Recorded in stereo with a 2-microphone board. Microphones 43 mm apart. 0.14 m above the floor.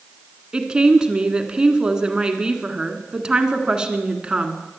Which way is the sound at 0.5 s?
20° right (ahead or behind).